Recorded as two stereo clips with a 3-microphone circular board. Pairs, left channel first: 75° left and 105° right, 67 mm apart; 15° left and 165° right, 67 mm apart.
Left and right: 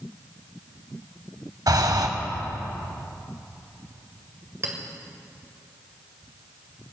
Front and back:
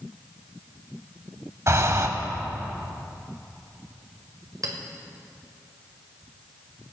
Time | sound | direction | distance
1.7 | breathing | 125° right | 1.0 m
4.6 | a clink | 145° right | 1.8 m